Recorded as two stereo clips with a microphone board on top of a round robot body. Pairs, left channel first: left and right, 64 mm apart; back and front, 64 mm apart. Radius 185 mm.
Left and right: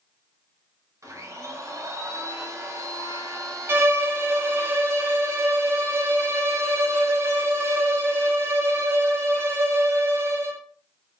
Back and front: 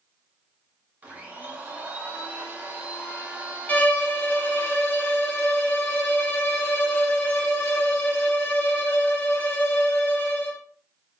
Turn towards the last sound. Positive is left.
turn(degrees=-125)